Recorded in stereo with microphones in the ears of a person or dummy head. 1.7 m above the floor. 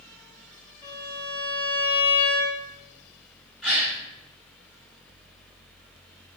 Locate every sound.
0.8 s a violin: 20° left (ahead or behind), 1.9 m
3.6 s a gasp: centre (ahead or behind), 2.5 m